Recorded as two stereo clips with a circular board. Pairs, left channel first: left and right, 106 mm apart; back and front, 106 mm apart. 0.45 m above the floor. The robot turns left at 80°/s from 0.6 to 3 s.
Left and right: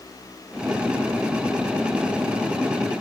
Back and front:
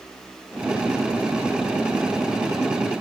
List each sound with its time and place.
Only background noise.